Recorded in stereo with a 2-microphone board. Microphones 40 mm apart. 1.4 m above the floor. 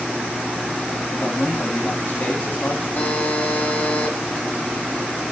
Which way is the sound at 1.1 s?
40° left (ahead or behind).